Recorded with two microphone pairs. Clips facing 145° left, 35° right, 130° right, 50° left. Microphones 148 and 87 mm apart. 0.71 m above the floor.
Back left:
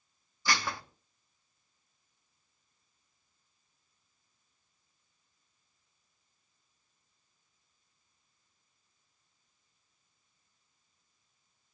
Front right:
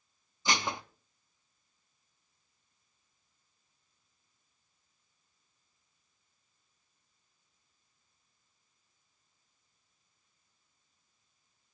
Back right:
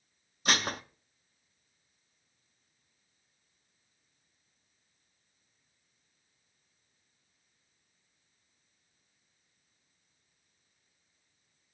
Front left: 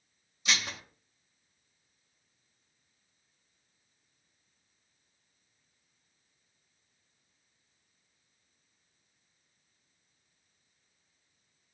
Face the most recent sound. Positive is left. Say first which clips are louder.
# front right 1 dB, back right 4 dB
turn(degrees=-105)